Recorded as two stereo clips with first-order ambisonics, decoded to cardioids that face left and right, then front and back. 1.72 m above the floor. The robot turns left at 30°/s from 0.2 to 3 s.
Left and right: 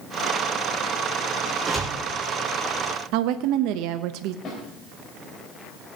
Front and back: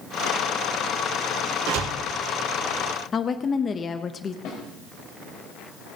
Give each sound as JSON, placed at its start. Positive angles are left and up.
{"t": 1.7, "sound": "a door slam", "azimuth_deg": -165, "distance_m": 4.5}
{"t": 3.1, "sound": "a woman speaking", "azimuth_deg": -65, "distance_m": 0.6}
{"t": 4.5, "sound": "a snare drum", "azimuth_deg": 35, "distance_m": 4.5}